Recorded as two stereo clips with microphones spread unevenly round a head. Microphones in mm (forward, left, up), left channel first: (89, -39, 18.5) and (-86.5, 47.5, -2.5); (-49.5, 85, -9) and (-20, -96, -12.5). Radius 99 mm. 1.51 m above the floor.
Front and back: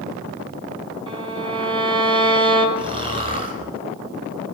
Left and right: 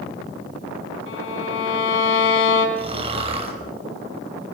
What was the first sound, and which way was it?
A violin, 85° left.